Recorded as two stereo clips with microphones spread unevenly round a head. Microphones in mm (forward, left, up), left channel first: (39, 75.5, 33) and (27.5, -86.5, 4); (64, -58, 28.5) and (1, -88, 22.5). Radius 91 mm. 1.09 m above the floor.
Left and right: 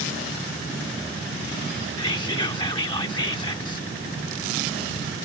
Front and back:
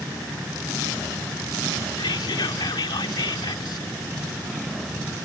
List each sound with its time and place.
2.0 s whispering: 25° left